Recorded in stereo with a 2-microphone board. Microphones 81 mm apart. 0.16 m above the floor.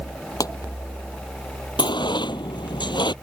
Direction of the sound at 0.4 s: 50° left (ahead or behind).